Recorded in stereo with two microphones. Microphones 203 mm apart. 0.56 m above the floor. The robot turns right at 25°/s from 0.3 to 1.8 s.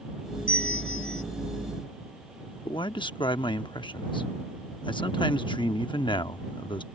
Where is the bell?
80° left; by 1.2 s 75° left (ahead or behind).